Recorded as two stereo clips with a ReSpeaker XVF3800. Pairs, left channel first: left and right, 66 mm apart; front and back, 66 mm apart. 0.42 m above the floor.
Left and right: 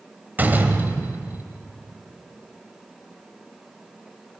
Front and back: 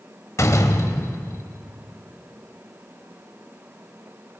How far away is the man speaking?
No man speaking in this recording.